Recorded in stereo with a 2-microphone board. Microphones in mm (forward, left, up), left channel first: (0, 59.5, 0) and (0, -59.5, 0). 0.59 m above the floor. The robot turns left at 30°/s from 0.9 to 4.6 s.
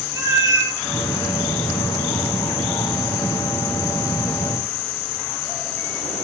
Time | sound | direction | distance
0.1 | a cat meowing | 30° right (ahead or behind) | 2 m